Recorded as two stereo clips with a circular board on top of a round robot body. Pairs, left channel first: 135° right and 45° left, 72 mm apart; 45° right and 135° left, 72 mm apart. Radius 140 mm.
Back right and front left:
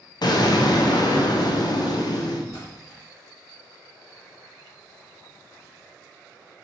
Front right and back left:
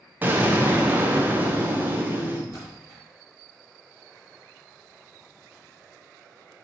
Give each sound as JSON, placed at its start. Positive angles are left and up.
{"t": 0.2, "sound": "an explosion", "azimuth_deg": -160, "distance_m": 0.6}
{"t": 2.5, "sound": "a splash", "azimuth_deg": -100, "distance_m": 1.2}